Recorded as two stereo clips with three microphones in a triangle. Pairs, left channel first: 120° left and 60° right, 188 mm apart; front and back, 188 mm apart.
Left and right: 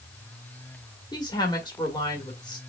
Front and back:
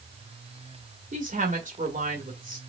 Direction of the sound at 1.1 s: 175° left.